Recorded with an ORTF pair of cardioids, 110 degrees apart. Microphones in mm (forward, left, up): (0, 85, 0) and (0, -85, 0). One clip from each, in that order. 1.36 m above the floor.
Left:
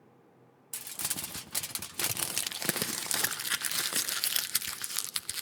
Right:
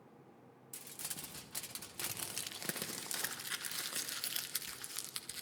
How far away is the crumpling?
About 1.0 m.